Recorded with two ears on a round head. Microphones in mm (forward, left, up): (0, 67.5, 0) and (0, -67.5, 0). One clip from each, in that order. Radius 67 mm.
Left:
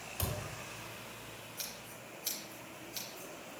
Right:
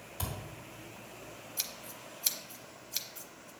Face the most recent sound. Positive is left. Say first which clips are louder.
# right 7 dB
turn(degrees=-55)  # may be behind; listen again after turning